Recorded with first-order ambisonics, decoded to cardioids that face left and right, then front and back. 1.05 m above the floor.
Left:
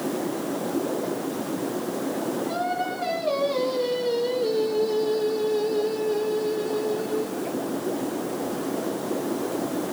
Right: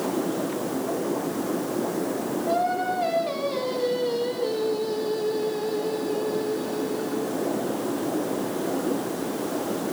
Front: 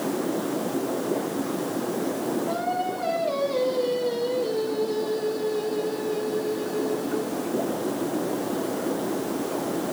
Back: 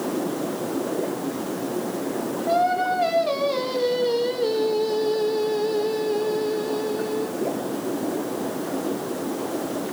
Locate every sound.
2.5 s singing: 175° right, 2.5 m